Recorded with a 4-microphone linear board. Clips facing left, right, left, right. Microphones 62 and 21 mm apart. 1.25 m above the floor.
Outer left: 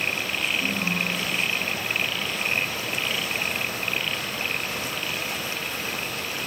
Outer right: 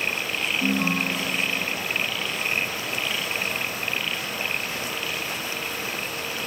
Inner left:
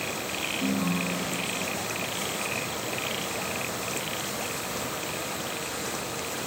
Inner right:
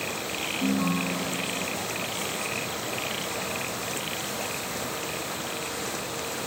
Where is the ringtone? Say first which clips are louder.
Outer right 3 dB, inner right 3 dB; 40° right (ahead or behind), 0.9 m.